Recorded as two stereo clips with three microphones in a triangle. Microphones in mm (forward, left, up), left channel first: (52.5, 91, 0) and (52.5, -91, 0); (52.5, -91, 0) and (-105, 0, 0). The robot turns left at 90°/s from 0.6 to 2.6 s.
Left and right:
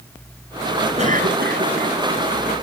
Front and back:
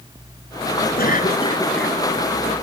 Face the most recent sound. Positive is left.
turn(degrees=170)